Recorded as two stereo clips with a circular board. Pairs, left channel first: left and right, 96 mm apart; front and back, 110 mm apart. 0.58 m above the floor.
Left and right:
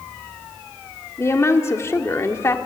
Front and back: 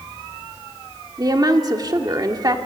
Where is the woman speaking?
140° left, 1.6 m.